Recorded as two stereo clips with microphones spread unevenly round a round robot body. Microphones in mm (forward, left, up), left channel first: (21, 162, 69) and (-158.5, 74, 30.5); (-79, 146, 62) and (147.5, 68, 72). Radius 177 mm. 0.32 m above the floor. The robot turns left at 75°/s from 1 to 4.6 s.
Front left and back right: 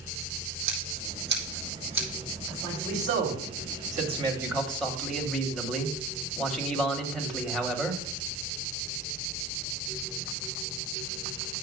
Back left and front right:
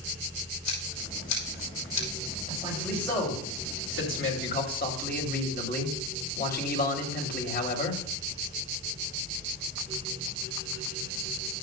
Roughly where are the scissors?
Behind.